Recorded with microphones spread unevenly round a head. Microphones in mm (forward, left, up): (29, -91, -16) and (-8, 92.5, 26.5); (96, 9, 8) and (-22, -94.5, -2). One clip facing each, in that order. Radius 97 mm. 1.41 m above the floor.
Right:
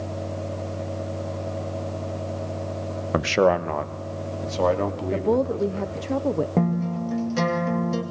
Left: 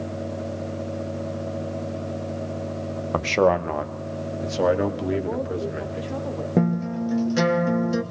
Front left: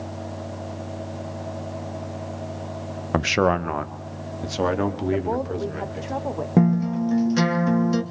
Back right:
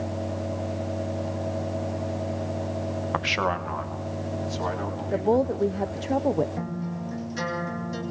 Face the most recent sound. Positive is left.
turn(degrees=25)